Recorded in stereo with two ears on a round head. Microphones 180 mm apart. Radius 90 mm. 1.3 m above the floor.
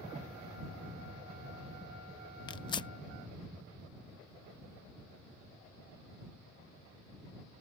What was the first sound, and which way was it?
Tearing paper, 25° left (ahead or behind).